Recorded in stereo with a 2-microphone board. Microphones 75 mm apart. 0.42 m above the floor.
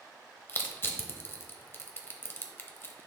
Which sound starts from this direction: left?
Crushing, at 0.5 s.